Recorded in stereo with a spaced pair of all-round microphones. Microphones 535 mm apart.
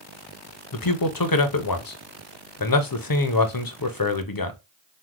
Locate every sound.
0.7 s a man speaking: 40° left (ahead or behind), 0.5 m